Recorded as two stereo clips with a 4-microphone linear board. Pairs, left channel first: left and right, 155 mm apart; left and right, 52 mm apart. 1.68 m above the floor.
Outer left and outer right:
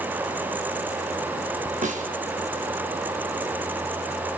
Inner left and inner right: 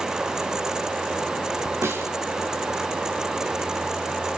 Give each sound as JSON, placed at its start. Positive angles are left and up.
{"t": 1.8, "sound": "a snare drum", "side_deg": -55, "distance_m": 5.0}